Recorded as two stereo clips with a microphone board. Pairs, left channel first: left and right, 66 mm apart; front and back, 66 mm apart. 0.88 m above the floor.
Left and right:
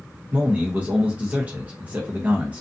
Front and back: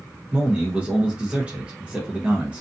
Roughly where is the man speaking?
Behind right.